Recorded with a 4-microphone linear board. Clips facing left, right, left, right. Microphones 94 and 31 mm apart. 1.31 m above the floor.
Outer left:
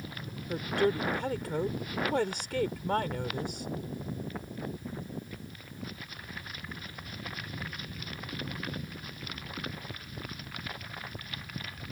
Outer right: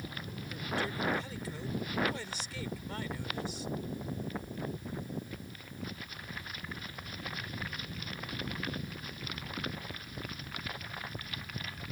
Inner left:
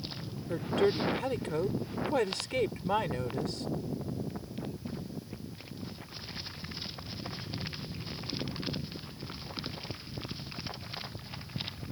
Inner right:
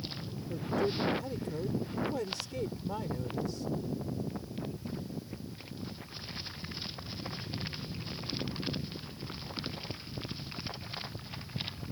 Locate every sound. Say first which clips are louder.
0.5 s a woman speaking: outer left 9 dB, inner left 4 dB; 60° left (ahead or behind)